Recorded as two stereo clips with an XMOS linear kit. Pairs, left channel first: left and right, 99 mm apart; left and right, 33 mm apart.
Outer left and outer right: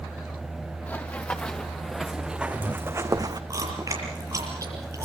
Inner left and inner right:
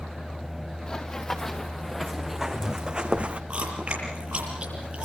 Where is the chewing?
30° right (ahead or behind), 7 m.